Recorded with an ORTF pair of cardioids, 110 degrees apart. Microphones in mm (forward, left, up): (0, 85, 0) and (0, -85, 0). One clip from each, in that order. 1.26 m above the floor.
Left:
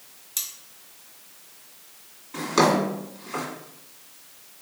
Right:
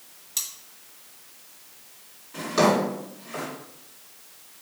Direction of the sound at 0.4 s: 10° left.